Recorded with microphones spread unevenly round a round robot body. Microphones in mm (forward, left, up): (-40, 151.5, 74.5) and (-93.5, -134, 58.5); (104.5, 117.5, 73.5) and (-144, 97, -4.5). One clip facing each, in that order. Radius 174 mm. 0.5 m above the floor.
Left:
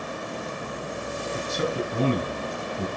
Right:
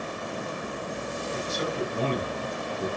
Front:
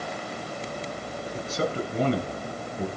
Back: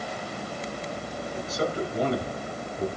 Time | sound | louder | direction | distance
1.3 | a man speaking | left 3 dB, even | 65° left | 9 m